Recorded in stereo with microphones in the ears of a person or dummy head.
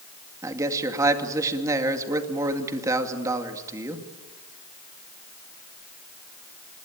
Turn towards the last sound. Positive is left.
turn(degrees=-15)  # may be behind; listen again after turning